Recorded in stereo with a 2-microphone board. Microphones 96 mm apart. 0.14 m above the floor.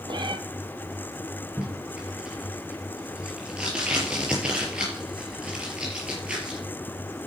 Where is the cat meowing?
55° right (ahead or behind), 0.7 m.